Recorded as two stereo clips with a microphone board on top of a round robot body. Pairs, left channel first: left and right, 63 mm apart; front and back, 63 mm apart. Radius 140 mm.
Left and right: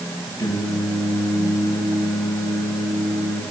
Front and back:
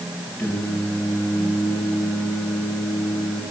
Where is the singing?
55° left, 8 m.